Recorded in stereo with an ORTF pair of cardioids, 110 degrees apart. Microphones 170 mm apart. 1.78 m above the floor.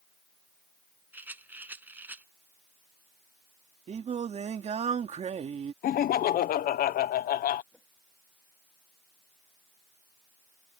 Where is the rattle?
10° right.